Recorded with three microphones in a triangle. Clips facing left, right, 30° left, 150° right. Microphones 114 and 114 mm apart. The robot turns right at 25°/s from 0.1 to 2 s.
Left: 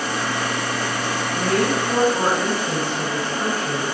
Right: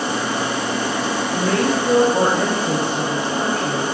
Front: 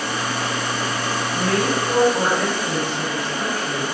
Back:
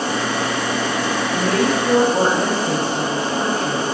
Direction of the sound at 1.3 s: 105° right.